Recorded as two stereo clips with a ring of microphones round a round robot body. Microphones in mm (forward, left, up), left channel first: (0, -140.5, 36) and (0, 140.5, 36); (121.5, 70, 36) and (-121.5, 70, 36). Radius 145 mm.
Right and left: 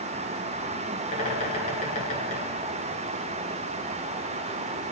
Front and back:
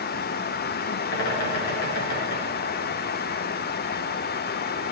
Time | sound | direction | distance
1.1 | a bird | 25° right | 6.5 m